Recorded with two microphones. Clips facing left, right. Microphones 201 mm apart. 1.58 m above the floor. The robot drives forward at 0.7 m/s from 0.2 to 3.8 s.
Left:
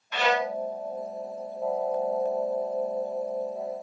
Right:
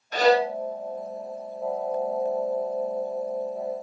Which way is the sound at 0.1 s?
40° right (ahead or behind).